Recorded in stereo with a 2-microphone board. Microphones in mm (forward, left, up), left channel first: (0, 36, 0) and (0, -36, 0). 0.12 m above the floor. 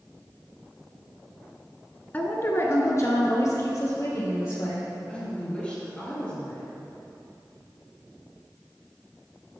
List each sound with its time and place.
2.1 s a woman speaking: 25° left (ahead or behind), 1.1 m; by 4.9 s 45° left (ahead or behind), 3.5 m
5.1 s a woman speaking: 20° left (ahead or behind), 1.8 m